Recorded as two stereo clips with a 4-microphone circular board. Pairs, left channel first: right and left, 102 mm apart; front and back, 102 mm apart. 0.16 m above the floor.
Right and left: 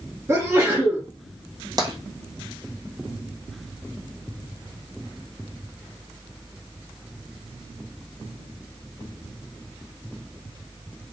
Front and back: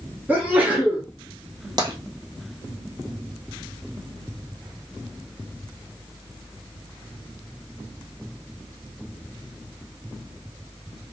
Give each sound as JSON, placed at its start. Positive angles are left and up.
{"t": 0.3, "sound": "a sneeze", "azimuth_deg": 120, "distance_m": 1.3}
{"t": 1.8, "sound": "tapping", "azimuth_deg": 135, "distance_m": 1.4}